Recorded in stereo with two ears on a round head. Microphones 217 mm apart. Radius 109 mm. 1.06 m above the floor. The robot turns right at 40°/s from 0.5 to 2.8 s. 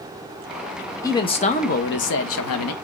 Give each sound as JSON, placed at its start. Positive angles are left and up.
{"t": 1.0, "sound": "a man speaking", "azimuth_deg": 15, "distance_m": 1.0}